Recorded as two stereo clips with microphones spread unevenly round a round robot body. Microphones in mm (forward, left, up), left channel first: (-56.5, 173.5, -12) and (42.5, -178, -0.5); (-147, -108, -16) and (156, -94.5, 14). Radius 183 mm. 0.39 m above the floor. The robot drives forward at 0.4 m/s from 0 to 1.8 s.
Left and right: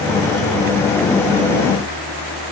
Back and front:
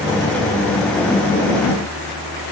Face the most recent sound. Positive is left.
No sound to turn to.